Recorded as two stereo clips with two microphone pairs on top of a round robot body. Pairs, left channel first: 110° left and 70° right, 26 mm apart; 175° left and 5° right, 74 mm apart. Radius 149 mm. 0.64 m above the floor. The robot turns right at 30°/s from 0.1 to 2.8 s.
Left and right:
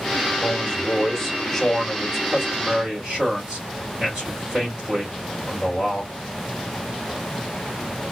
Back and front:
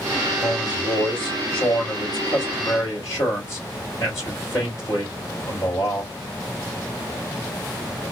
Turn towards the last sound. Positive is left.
turn(degrees=-135)